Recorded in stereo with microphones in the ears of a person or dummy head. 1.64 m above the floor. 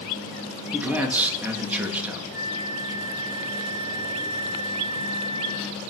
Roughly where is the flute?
Right.